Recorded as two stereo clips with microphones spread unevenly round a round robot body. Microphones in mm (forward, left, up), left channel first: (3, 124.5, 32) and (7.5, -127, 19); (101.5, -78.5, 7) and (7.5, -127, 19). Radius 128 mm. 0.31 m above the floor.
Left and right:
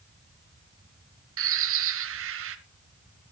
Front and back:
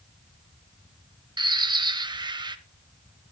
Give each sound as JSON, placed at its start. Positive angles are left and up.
{"t": 1.4, "sound": "a bird", "azimuth_deg": -105, "distance_m": 1.1}